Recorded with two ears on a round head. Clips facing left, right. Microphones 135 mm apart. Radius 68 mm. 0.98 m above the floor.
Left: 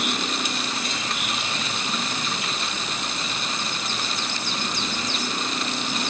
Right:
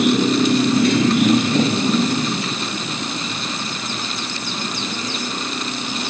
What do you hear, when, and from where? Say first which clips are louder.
0.0 s a motorcycle: right 13 dB; 70° right (ahead or behind); by 6.1 s 5° right (ahead or behind)